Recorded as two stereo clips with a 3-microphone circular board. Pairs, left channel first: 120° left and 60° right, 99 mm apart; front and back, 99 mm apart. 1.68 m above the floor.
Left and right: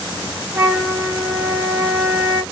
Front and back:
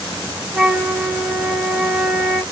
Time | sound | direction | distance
0.5 | a flute | 100° right | 0.9 m